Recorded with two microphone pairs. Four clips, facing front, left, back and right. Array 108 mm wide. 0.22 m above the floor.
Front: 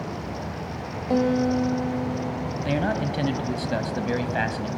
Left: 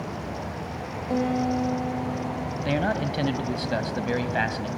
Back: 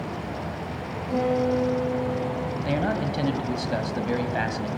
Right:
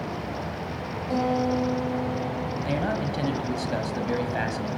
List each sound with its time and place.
1.1 s a guitar: straight ahead, 8 m
2.6 s a man speaking: 80° left, 1.5 m